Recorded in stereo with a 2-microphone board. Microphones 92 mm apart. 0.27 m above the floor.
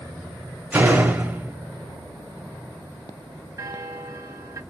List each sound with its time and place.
0.7 s a door slam: 20° right (ahead or behind), 0.6 m
3.6 s a bell: 35° right (ahead or behind), 0.6 m